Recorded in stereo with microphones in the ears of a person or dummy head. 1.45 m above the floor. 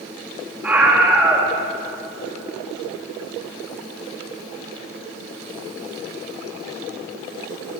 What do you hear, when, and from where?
0.6 s a scream: 5° right (ahead or behind), 3 m